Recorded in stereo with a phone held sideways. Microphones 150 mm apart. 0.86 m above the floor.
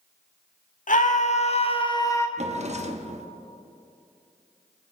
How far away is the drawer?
About 0.9 m.